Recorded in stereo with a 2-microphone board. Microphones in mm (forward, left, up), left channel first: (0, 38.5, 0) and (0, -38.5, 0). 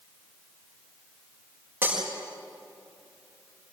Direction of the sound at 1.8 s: 25° right (ahead or behind).